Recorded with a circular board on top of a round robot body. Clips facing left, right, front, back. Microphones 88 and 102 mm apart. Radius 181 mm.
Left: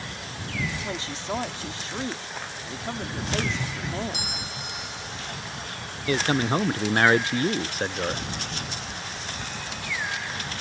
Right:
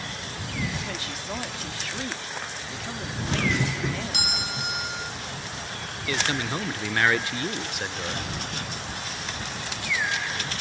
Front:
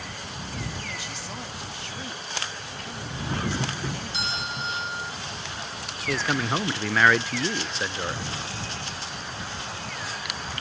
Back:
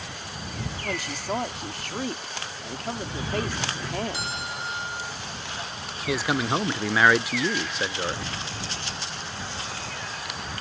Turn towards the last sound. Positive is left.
turn(degrees=105)